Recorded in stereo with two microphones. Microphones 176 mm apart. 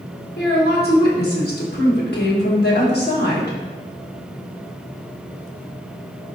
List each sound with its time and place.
0.4 s a woman speaking: 65° left (ahead or behind), 1.3 m